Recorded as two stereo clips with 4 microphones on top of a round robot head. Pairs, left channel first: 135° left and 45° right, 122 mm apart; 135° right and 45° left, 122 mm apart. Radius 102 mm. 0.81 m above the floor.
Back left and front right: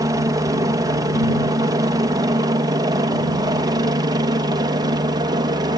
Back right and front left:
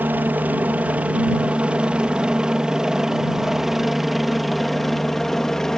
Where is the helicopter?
20° right; by 5.8 s 50° right.